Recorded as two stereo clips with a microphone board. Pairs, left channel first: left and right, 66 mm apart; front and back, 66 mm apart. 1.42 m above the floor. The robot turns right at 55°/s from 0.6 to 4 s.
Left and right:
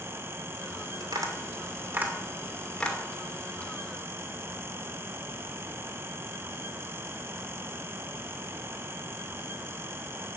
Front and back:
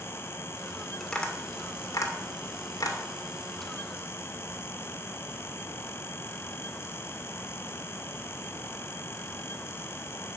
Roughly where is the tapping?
Right.